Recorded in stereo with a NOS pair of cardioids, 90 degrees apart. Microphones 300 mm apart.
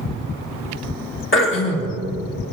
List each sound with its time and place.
1.3 s throat clearing: 40° left, 2.5 m